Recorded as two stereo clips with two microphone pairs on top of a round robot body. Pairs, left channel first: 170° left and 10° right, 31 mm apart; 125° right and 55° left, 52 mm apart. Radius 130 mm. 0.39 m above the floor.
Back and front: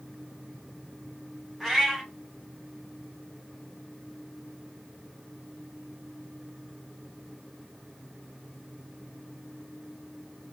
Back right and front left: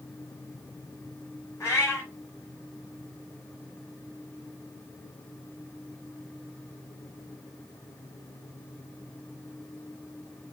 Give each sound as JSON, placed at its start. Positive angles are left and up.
{"t": 1.6, "sound": "a cat meowing", "azimuth_deg": -85, "distance_m": 4.5}